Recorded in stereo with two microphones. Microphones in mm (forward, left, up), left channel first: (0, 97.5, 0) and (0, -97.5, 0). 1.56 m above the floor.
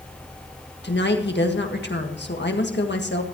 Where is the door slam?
No door slam in this recording.